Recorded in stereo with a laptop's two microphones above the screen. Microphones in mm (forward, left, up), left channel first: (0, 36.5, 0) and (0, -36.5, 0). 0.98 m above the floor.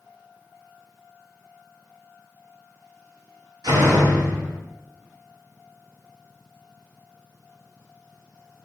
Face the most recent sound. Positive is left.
turn(degrees=-80)